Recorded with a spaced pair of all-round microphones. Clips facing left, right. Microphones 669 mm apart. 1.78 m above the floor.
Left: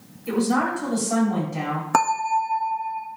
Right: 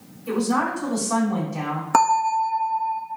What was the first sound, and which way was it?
A woman speaking, 5° right (ahead or behind).